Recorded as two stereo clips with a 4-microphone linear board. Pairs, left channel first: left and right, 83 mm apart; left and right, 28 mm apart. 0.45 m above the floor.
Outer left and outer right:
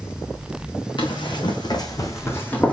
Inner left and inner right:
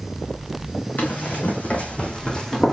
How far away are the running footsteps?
About 2.0 m.